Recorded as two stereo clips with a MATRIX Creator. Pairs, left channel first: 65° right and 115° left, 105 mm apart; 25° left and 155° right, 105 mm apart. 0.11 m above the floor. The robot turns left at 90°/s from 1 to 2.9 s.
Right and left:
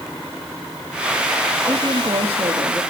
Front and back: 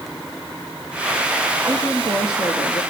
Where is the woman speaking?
Straight behind, 3 m; by 2.8 s 75° left, 3 m.